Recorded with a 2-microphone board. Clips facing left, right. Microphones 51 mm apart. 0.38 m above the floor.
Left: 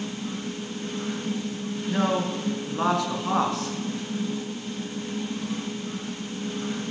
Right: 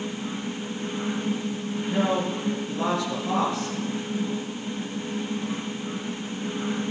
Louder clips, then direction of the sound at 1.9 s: Even; 75° left (ahead or behind).